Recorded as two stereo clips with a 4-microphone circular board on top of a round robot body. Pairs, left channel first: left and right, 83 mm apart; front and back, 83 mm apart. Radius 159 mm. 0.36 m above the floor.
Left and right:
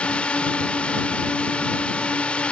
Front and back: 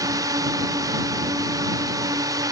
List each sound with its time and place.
0.0 s a drone: 160° left